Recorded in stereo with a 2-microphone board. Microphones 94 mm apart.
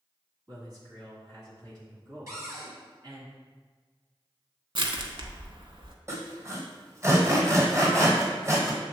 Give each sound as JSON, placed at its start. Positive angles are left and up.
{"t": 0.5, "sound": "a man speaking", "side_deg": -45, "distance_m": 1.8}
{"t": 2.3, "sound": "a cupboard door", "side_deg": -35, "distance_m": 1.4}
{"t": 4.8, "sound": "crushing", "side_deg": -65, "distance_m": 0.6}
{"t": 6.1, "sound": "sawing", "side_deg": -30, "distance_m": 1.3}